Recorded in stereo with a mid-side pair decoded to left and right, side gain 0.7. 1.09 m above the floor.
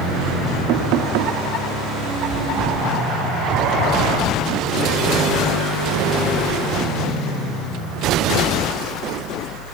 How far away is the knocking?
About 1.7 m.